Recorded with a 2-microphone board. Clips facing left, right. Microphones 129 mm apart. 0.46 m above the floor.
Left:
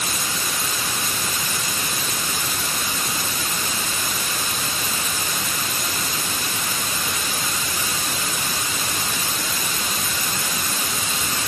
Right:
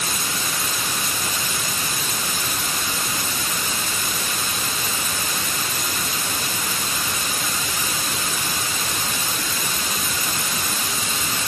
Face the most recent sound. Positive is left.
No sound to turn to.